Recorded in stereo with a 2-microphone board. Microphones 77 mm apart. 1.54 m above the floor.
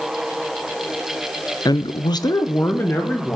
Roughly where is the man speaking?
Left.